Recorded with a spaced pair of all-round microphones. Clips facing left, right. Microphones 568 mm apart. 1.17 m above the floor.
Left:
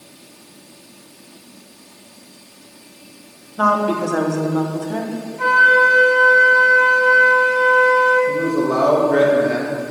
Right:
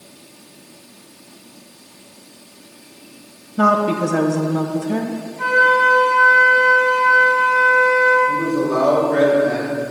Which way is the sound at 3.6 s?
50° right (ahead or behind).